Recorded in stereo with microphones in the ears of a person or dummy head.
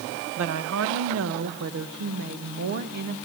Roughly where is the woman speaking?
Right.